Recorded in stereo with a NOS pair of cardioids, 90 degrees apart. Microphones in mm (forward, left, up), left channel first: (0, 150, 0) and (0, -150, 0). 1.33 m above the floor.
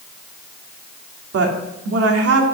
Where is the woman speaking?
50° right, 2.5 m.